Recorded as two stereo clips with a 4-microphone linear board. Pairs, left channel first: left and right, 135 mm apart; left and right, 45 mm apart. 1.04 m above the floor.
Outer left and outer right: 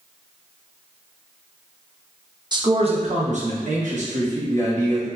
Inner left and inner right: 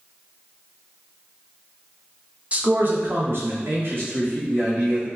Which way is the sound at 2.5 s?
30° right (ahead or behind).